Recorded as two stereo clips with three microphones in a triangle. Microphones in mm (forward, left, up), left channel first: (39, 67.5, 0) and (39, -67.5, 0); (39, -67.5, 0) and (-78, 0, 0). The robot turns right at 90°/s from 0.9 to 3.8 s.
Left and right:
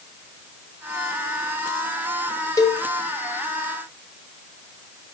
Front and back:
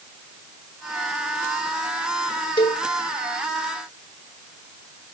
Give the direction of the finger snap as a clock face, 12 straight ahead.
I don't hear a finger snap.